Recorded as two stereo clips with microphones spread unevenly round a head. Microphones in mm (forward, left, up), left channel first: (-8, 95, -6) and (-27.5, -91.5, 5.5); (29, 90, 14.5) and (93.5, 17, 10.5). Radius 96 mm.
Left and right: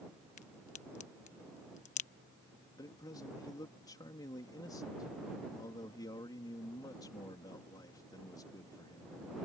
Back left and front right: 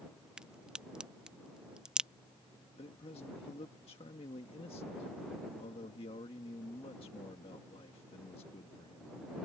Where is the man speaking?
150° left.